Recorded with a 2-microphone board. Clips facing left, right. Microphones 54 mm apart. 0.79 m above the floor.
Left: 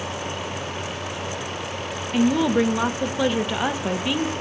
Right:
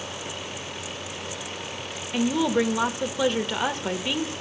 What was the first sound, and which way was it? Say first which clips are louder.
A woman speaking: left 3 dB; 5° left (ahead or behind).